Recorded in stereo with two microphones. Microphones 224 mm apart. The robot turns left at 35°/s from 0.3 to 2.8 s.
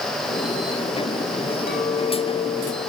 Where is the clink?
50° left, 3.5 m; by 2.9 s 10° left, 3.5 m.